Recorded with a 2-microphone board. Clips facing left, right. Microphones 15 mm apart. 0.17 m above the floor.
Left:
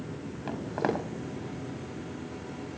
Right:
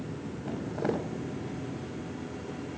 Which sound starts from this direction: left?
Footsteps, at 0.5 s.